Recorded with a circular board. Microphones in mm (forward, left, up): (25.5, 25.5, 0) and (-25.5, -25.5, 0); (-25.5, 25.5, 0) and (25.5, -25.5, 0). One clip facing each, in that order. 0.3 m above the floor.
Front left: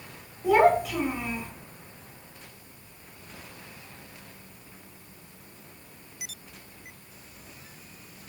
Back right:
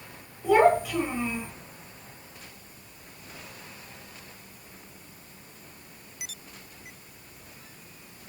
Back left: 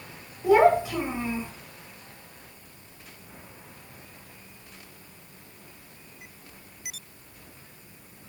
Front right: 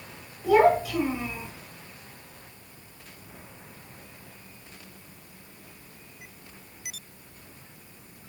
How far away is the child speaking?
About 1.1 m.